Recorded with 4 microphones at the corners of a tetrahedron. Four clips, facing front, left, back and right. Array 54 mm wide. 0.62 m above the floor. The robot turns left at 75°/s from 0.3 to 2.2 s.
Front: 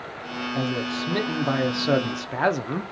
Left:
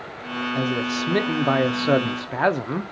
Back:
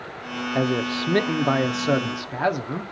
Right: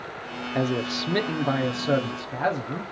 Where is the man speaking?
160° right, 1.0 m; by 2.8 s 75° left, 1.0 m.